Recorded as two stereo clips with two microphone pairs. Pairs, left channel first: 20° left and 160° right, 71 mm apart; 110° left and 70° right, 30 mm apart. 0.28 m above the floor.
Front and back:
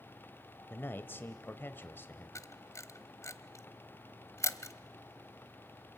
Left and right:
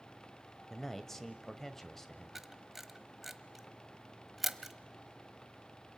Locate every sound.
0.7 s a man speaking: 40° left, 1.2 m
2.4 s a camera shutter: 5° left, 1.1 m